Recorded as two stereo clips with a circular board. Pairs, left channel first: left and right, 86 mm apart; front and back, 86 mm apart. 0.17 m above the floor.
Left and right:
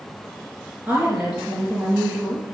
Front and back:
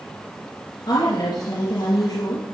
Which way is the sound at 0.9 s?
20° right.